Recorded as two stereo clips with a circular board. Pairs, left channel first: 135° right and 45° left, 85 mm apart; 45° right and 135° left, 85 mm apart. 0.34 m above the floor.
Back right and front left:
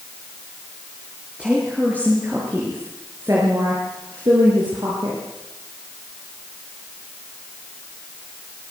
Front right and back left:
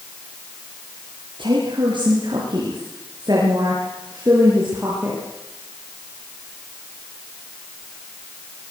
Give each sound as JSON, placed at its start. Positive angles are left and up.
{"t": 1.4, "sound": "a woman speaking", "azimuth_deg": 125, "distance_m": 6.5}